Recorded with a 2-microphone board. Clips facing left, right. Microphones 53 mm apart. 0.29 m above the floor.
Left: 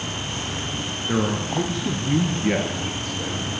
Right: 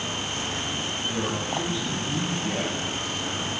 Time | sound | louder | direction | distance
1.1 | a man speaking | left 7 dB | 50° left (ahead or behind) | 3.5 m